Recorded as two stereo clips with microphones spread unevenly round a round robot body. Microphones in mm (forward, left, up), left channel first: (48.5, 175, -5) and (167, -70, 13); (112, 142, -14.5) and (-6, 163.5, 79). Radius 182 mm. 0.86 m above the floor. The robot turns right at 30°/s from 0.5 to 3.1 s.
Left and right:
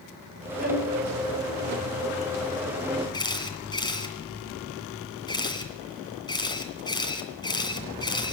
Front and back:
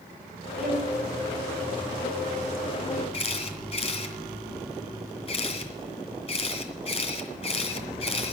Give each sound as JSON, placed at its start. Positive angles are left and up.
{"t": 0.6, "sound": "a violin", "azimuth_deg": -135, "distance_m": 3.0}
{"t": 3.1, "sound": "a camera shutter", "azimuth_deg": 40, "distance_m": 2.5}